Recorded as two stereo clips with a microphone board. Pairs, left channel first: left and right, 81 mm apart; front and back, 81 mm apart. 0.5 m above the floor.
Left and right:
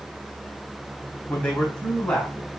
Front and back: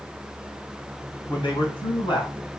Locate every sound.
1.3 s a man speaking: 15° left, 3 m